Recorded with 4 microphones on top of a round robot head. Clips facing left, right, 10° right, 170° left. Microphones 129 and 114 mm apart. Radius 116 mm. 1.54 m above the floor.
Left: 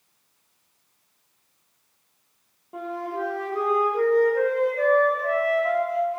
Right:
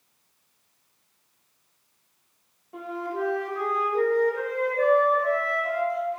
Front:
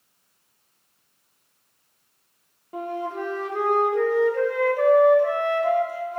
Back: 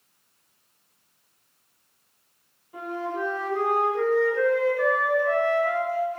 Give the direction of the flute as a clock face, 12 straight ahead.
11 o'clock.